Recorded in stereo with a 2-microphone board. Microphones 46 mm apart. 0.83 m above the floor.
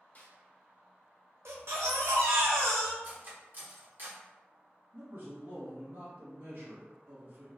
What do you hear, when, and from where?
0.1 s a snare drum: 35° left (ahead or behind), 1.0 m
1.4 s a baby crying: 70° right (ahead or behind), 0.6 m
3.0 s cutlery clinking: 45° right (ahead or behind), 0.8 m
4.9 s a man speaking: 50° right (ahead or behind), 1.2 m